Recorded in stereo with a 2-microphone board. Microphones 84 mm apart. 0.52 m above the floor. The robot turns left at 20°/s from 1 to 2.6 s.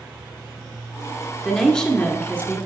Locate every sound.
1.4 s a woman speaking: 5° left (ahead or behind), 1.5 m; by 2.6 s 20° left (ahead or behind), 1.5 m